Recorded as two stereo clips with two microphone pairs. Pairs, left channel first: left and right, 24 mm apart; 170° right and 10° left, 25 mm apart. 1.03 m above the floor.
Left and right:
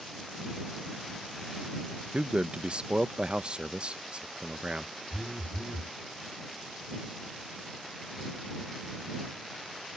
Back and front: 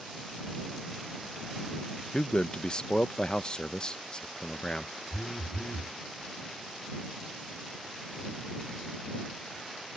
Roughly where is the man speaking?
Behind right.